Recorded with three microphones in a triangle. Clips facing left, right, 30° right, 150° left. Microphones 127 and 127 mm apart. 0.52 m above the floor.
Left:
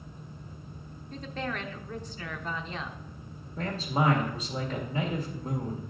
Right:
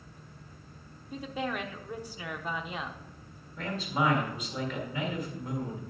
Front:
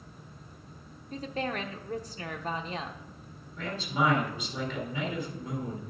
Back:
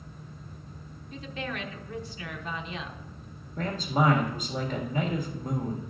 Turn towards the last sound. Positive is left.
turn(degrees=130)